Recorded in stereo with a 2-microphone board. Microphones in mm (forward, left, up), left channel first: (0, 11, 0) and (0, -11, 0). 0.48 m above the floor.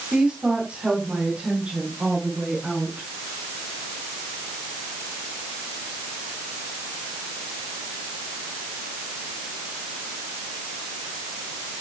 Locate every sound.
0.1 s a woman speaking: 65° right (ahead or behind), 3.5 m; by 3.1 s 80° right, 7.5 m